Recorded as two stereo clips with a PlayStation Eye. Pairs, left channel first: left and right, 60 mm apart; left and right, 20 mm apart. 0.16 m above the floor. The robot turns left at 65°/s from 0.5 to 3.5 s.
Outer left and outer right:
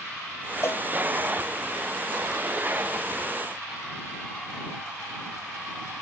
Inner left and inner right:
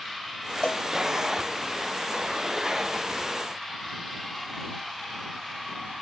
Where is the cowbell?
50° left (ahead or behind); by 0.8 s 65° left (ahead or behind).